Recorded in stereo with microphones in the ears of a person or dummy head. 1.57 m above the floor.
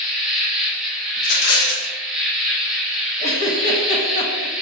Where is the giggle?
35° left (ahead or behind), 1.7 m.